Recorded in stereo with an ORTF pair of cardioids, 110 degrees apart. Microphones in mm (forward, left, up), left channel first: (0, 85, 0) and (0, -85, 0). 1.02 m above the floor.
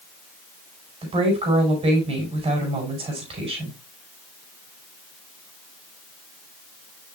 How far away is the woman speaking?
About 5 m.